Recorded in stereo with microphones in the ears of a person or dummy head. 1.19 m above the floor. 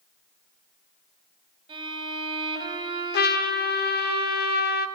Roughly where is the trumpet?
Left.